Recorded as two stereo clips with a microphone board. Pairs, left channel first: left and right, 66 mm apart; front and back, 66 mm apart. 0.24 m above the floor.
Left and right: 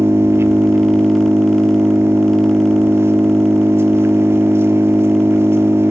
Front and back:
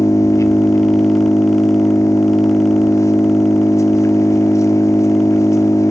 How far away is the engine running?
About 1.7 m.